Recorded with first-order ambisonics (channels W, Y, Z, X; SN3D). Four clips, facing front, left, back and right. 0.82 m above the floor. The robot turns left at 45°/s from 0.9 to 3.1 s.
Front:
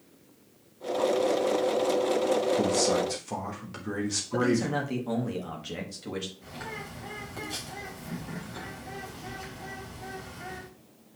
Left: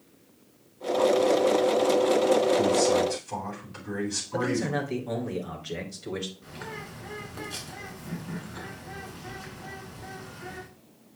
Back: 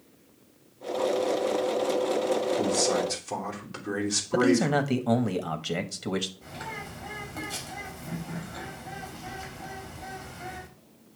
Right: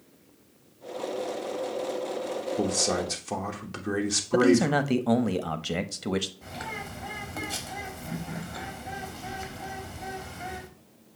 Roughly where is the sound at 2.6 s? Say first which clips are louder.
Left 5 dB, even; ahead right.